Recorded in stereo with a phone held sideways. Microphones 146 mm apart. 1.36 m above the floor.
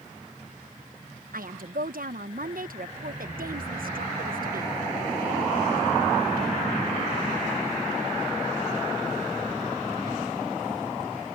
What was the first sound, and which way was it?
A woman speaking, 75° right (ahead or behind).